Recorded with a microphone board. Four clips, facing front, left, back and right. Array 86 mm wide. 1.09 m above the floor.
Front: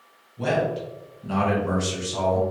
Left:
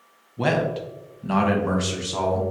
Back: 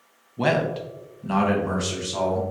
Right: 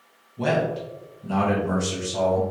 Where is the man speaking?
155° left, 0.6 m; by 2.4 s 85° left, 1.2 m.